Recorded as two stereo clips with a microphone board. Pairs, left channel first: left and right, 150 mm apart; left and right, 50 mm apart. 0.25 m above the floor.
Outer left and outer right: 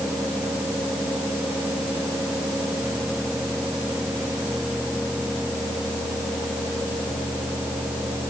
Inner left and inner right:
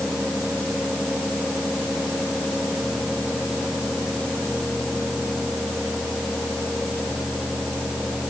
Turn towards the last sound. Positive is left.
No sound to turn to.